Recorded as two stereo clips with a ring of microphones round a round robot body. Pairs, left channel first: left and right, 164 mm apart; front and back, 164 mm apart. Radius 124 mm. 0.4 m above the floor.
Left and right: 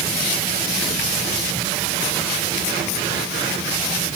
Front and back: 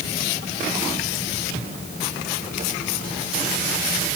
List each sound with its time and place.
Only background noise.